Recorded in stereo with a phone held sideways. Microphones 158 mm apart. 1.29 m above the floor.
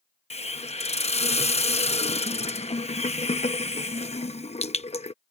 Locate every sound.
0.3 s a hiss: 40° left (ahead or behind)